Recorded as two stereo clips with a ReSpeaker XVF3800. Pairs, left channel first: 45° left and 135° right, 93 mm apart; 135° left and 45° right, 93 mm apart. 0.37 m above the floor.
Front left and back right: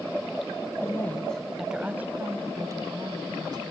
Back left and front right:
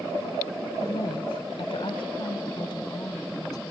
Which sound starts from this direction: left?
A woman speaking, at 0.8 s.